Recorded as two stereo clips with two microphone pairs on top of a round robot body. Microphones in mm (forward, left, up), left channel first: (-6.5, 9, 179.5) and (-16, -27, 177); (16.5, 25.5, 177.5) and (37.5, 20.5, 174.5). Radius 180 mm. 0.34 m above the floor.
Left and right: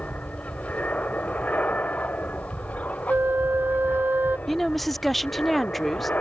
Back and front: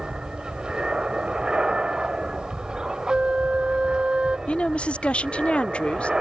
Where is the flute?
70° right.